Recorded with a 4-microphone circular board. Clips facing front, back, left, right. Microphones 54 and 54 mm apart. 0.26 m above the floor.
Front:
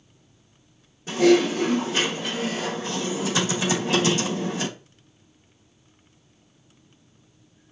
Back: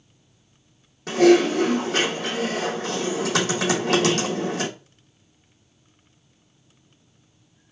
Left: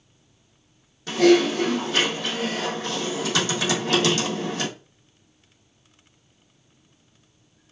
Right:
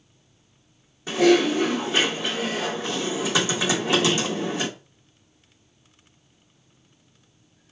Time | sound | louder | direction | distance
1.1 | typing on a keyboard | back 2 dB, left 1 dB | 165° right | 3 m